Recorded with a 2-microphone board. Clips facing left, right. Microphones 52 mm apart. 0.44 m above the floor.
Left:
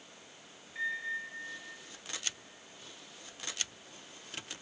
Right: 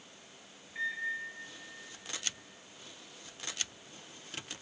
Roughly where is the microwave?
Centre.